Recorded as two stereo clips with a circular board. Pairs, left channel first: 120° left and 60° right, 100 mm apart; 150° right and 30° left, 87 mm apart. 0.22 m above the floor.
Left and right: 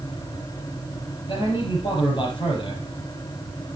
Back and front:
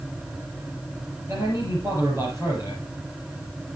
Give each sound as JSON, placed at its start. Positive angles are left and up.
{"t": 1.3, "sound": "a man speaking", "azimuth_deg": 85, "distance_m": 5.0}